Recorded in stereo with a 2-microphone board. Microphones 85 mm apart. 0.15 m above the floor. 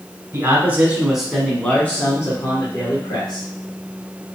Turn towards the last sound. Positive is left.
turn(degrees=55)  # may be behind; listen again after turning